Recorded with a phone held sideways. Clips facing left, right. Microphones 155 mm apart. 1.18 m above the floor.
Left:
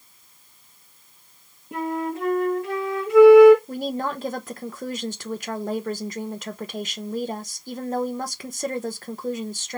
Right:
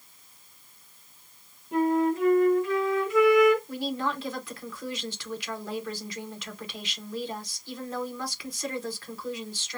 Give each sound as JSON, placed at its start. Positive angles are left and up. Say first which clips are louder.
{"t": 1.7, "sound": "a flute", "louder": "right 4 dB", "side_deg": 75, "distance_m": 2.0}
{"t": 3.7, "sound": "a woman speaking", "louder": "left 3 dB", "side_deg": 50, "distance_m": 1.0}